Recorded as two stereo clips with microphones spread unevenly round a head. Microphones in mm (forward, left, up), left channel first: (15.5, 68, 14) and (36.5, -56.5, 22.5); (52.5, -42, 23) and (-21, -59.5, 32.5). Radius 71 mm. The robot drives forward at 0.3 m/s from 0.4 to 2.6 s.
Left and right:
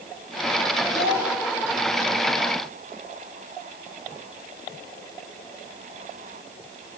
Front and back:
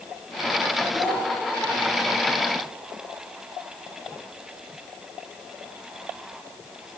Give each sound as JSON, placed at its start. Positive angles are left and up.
{"t": 0.9, "sound": "a child speaking", "azimuth_deg": 100, "distance_m": 5.0}